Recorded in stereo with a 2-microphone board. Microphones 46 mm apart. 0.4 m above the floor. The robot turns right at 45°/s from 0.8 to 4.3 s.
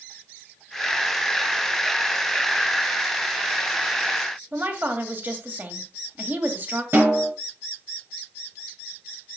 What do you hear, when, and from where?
4.5 s a woman speaking: 45° right (ahead or behind), 2 m
6.9 s a snare drum: 55° right (ahead or behind), 5 m